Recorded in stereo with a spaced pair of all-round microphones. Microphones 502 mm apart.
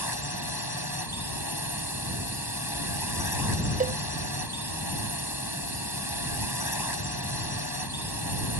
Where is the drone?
45° left (ahead or behind).